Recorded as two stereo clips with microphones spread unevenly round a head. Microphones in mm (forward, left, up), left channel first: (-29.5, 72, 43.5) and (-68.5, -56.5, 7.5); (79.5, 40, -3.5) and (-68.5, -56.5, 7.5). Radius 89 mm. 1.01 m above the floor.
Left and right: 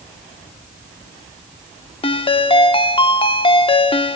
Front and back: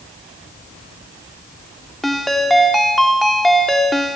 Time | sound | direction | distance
2.0 | a ringtone | 120° left | 1.7 m